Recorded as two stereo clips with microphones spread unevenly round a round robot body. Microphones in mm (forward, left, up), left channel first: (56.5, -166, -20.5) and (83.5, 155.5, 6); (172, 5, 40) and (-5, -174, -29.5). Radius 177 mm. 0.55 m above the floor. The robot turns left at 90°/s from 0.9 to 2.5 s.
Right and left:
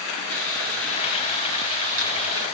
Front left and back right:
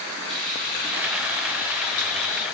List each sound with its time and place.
0.3 s frying: straight behind, 8.5 m; by 2.5 s 40° left, 8.5 m